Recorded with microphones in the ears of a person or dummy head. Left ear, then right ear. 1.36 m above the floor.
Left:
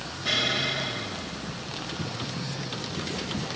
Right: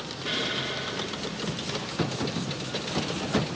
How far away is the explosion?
About 1.8 m.